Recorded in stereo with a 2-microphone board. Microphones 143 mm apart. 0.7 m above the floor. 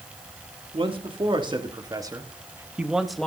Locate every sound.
0.7 s a man speaking: 35° right (ahead or behind), 1.9 m; by 3.3 s 5° left (ahead or behind), 1.0 m